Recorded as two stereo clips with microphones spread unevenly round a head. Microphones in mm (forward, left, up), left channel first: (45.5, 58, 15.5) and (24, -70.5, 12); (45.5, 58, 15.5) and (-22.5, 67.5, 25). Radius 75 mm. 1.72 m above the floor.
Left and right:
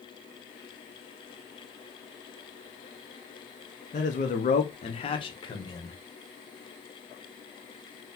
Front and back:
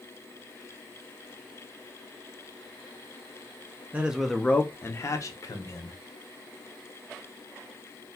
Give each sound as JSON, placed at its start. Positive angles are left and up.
{"t": 3.9, "sound": "a man speaking", "azimuth_deg": 110, "distance_m": 0.7}